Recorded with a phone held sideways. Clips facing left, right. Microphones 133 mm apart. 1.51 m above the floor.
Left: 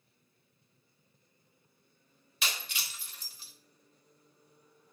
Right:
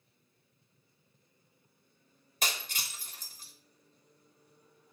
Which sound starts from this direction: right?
Breaking glass, at 2.4 s.